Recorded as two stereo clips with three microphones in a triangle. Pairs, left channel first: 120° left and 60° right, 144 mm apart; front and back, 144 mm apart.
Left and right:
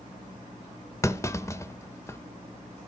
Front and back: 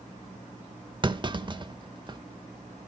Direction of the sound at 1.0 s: 175° left.